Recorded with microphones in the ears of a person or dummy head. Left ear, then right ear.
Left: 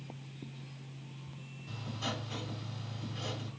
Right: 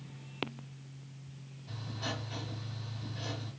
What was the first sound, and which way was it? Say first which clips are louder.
Writing: left 1 dB; 80° left.